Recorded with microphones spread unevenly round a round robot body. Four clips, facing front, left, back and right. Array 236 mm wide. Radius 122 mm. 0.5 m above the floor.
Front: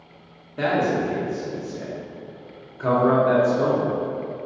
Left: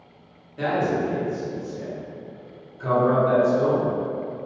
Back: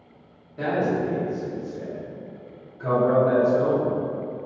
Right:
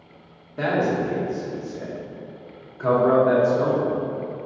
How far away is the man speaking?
About 0.9 m.